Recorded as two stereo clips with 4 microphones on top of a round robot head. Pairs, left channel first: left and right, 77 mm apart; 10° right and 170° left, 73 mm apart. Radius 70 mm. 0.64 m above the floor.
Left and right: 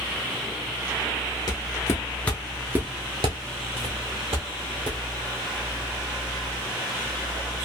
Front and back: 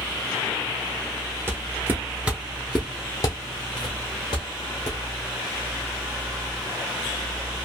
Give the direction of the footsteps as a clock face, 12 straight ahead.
8 o'clock.